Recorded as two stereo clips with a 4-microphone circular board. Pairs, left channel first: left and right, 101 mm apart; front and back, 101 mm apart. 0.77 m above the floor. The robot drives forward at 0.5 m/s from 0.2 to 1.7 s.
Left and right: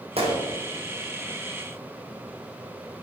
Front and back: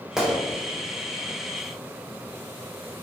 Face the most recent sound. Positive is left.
turn(degrees=-110)